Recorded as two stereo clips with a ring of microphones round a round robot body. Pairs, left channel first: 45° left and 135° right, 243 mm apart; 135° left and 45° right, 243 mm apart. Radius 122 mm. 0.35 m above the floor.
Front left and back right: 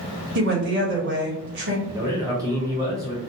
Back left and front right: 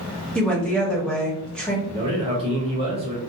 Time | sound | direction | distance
0.3 | a woman speaking | 140° right | 1.3 m
1.9 | a man speaking | 75° right | 1.1 m